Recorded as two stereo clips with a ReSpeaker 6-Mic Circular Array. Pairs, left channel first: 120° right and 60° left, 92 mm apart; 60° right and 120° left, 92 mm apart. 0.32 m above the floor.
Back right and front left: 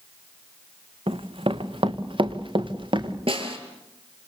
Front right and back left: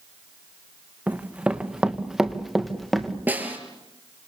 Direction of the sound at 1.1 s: 45° left.